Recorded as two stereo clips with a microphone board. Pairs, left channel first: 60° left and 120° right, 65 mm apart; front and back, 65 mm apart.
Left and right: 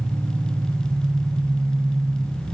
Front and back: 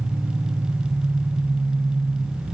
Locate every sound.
0.0 s an engine running: 125° right, 9.5 m